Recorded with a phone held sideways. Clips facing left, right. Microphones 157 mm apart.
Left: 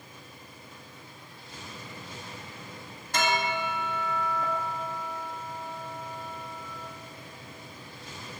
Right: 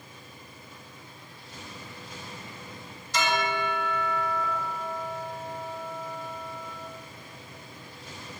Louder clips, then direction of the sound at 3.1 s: Right 1 dB; 55° left (ahead or behind).